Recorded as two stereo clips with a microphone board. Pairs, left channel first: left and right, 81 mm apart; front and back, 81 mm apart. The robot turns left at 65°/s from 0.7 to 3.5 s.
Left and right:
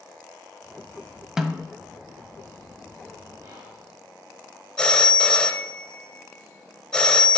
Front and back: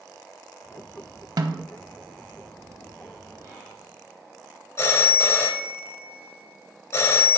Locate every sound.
1.4 s a snare drum: 170° right, 0.6 m; by 1.7 s 170° left, 0.6 m
3.4 s whispering: 130° right, 4 m; by 3.9 s 135° right, 4 m
4.8 s a phone ringing: 20° left, 0.8 m